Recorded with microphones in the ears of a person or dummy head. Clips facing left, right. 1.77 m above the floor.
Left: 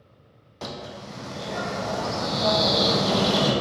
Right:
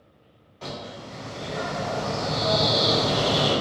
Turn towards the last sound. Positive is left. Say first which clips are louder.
# even
turn(degrees=65)  # may be behind; listen again after turning